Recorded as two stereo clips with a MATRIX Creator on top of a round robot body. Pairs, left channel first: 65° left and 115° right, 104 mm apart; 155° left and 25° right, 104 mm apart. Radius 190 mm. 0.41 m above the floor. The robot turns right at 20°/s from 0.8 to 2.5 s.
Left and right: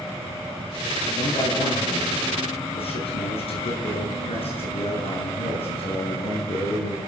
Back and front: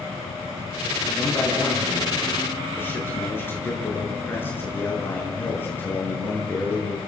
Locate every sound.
1.1 s a man speaking: 60° left, 7.5 m; by 7.0 s 90° left, 7.5 m